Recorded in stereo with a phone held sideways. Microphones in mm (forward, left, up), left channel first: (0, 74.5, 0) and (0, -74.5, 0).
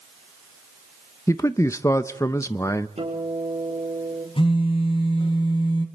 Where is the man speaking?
20° left (ahead or behind), 0.5 m.